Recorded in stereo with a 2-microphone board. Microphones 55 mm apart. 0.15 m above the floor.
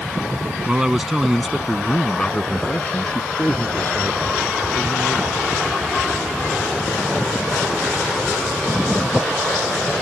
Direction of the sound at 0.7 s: 20° right (ahead or behind).